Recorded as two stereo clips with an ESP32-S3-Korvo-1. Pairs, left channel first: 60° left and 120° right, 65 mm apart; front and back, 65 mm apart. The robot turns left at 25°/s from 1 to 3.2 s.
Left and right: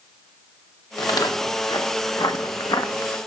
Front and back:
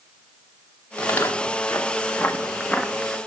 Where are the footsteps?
65° left, 1.3 m; by 3.2 s 90° left, 0.6 m.